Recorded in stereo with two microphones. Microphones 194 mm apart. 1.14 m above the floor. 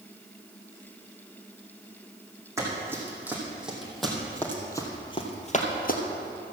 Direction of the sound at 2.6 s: 15° right (ahead or behind).